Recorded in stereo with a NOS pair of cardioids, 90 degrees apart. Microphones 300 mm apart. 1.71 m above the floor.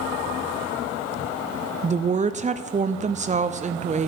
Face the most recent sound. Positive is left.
turn(degrees=-25)